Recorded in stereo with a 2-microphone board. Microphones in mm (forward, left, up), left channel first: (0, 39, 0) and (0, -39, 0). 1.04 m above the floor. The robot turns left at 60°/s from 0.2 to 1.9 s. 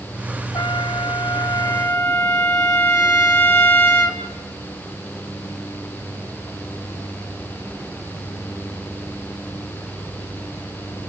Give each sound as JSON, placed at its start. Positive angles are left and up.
{"t": 0.5, "sound": "a trumpet", "azimuth_deg": 120, "distance_m": 1.9}